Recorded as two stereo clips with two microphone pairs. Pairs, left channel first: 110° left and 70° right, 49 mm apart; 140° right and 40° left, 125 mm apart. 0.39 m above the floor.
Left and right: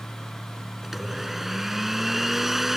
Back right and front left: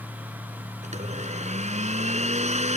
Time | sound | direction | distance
0.8 | a blender | 15° left | ?